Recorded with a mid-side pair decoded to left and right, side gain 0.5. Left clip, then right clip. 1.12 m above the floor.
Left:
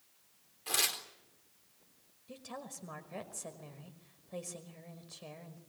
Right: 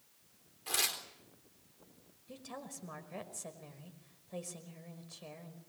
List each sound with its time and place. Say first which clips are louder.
0.7 s tearing paper: left 2 dB; 15° left, 4 m
2.3 s a woman speaking: left 1 dB; 10° left, 5 m